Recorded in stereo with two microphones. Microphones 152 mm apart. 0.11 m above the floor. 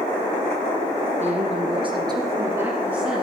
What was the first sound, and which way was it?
A woman speaking, 45° right (ahead or behind).